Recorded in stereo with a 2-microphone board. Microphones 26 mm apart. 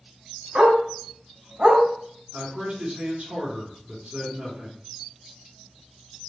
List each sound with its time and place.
0.6 s a dog barking: 55° right (ahead or behind), 1.6 m; by 1.8 s 65° right (ahead or behind), 1.5 m
2.3 s a man speaking: 75° right (ahead or behind), 2.5 m